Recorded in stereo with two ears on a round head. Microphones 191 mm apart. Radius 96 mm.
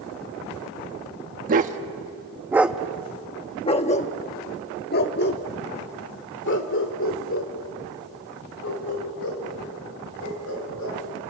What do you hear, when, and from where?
1.5 s a dog barking: 40° right (ahead or behind), 1.0 m; by 11.0 s 70° left (ahead or behind), 4.5 m